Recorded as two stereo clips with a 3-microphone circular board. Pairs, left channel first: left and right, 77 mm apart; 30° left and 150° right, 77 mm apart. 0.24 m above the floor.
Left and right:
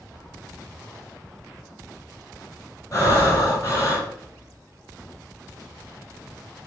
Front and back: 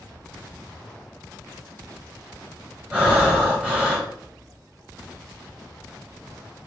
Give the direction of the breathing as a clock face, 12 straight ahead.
7 o'clock.